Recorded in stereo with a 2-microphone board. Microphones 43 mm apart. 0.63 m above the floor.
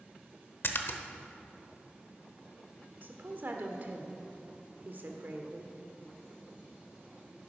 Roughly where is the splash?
Left.